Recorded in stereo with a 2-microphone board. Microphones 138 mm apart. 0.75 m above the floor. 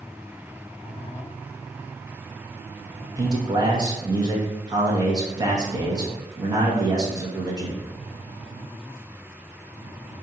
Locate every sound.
3.2 s a man speaking: 30° right (ahead or behind), 1.1 m